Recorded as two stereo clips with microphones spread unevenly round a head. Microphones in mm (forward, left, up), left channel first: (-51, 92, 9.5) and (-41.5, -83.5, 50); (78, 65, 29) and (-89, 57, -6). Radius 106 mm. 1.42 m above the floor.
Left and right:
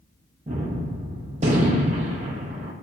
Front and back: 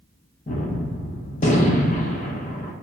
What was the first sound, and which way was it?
A gunshot, 40° right.